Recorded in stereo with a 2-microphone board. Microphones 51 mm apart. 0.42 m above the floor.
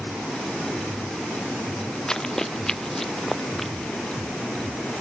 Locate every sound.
2.1 s running footsteps: 10° left (ahead or behind); by 3.7 s 5° left (ahead or behind)